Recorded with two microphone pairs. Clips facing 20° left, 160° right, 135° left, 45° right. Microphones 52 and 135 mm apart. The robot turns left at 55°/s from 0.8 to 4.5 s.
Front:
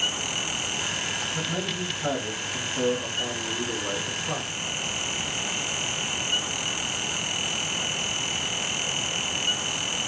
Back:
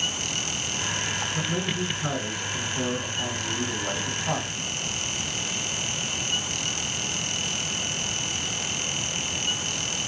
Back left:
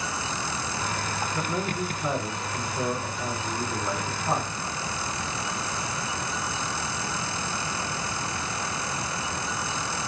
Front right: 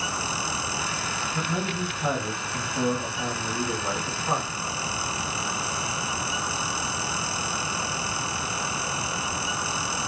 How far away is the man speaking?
About 3 m.